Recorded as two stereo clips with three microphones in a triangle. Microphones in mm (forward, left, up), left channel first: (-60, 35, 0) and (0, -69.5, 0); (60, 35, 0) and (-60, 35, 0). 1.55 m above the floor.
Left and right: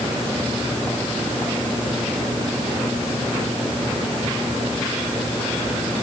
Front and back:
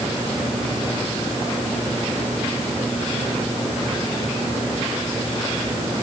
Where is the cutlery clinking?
No cutlery clinking in this recording.